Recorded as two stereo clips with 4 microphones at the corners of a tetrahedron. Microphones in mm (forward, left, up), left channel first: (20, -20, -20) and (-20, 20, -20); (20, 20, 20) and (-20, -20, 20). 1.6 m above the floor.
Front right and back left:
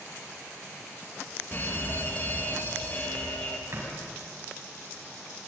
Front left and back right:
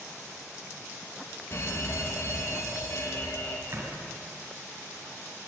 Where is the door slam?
Straight behind, 8.5 m.